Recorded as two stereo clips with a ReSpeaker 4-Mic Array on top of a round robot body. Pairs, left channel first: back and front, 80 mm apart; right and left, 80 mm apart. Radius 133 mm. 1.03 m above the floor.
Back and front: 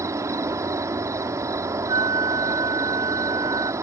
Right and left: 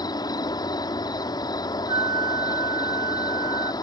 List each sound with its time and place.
0.0 s an insect: 55° right
1.9 s a flute: 45° left